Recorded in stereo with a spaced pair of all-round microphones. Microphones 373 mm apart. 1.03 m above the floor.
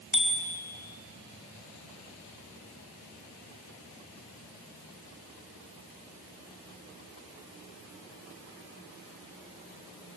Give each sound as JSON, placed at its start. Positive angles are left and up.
{"t": 0.1, "sound": "a bicycle bell", "side_deg": 60, "distance_m": 4.0}